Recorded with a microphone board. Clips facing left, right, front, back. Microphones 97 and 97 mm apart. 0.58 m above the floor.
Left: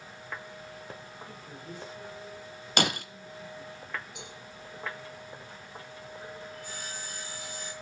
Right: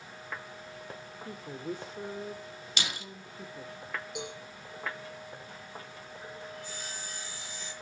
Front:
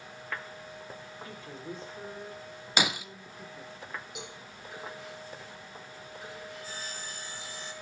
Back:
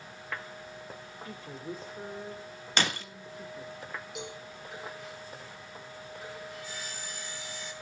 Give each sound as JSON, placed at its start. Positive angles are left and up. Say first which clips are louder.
{"t": 1.2, "sound": "a woman speaking", "louder": "right 6 dB, back 2 dB", "azimuth_deg": -95, "distance_m": 2.0}
{"t": 2.8, "sound": "breaking glass", "louder": "left 10 dB, front 1 dB", "azimuth_deg": 80, "distance_m": 1.1}
{"t": 4.2, "sound": "a cowbell", "louder": "right 7 dB, back 4 dB", "azimuth_deg": -90, "distance_m": 7.5}
{"t": 6.5, "sound": "sawing", "louder": "left 1 dB, even", "azimuth_deg": 55, "distance_m": 7.0}